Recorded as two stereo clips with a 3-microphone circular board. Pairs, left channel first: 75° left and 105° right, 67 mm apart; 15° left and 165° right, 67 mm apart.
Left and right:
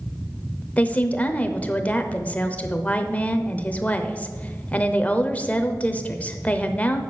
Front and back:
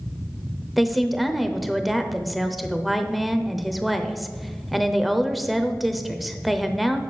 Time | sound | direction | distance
0.8 | a woman speaking | 105° left | 0.8 m